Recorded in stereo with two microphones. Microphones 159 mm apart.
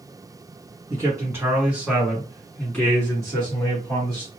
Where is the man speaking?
20° right (ahead or behind), 1.7 m; by 4.3 s 30° left (ahead or behind), 2 m.